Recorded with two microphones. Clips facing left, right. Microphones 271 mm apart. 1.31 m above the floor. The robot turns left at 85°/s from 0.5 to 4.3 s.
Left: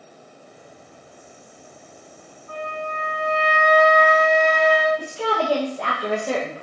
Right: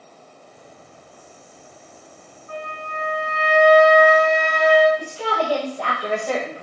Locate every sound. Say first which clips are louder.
2.5 s a flute: left 3 dB; 80° left, 1.4 m; by 4.9 s 75° right, 1.4 m
5.0 s a woman speaking: left 1 dB; 25° left (ahead or behind), 0.8 m